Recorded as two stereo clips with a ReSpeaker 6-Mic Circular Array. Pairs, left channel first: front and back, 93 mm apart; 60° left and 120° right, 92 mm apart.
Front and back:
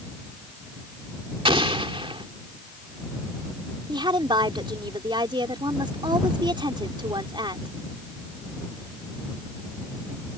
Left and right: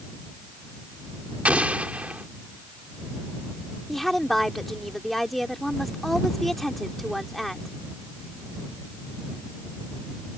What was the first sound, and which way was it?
An explosion, 165° left.